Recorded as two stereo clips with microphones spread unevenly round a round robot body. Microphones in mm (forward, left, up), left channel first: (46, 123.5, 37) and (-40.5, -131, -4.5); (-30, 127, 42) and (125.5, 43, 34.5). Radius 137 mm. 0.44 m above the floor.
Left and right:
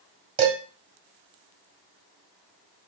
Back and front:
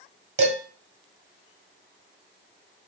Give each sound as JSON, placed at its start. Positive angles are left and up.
{"t": 0.4, "sound": "dishes clattering", "azimuth_deg": -40, "distance_m": 1.6}